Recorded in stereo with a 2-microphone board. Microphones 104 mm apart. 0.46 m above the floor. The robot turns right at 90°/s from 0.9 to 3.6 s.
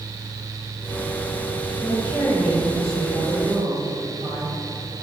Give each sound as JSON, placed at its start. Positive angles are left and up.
{"t": 1.8, "sound": "a woman speaking", "azimuth_deg": 135, "distance_m": 2.0}